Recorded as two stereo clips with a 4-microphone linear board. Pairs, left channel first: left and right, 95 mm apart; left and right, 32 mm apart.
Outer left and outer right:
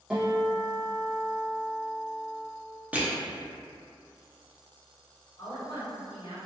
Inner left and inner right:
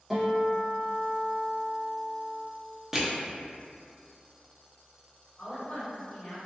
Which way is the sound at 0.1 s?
10° right (ahead or behind).